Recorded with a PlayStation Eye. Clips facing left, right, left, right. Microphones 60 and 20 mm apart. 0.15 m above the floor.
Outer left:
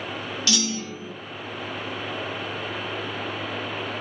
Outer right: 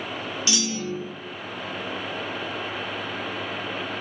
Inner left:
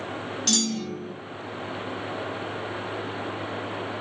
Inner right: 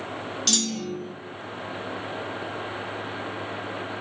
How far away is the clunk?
About 0.7 m.